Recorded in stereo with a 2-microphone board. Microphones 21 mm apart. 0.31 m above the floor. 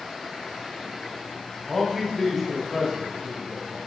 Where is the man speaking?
Centre (ahead or behind), 1.5 m; by 3.8 s 25° left (ahead or behind), 2 m.